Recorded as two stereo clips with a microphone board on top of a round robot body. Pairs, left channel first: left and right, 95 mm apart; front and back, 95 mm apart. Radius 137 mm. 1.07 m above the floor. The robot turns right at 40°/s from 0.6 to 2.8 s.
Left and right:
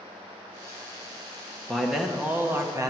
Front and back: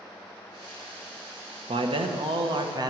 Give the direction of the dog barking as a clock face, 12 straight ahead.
No dog barking in this recording.